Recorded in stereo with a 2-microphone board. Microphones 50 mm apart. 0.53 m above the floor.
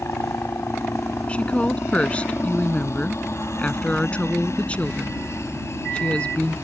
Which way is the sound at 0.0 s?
60° left (ahead or behind).